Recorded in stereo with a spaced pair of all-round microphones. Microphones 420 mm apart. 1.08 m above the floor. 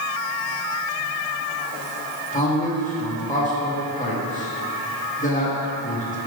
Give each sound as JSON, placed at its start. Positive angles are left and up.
{"t": 2.3, "sound": "a man speaking", "side_deg": 20, "distance_m": 1.4}